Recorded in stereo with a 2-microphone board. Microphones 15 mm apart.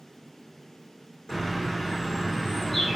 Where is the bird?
30° left (ahead or behind), 4 m.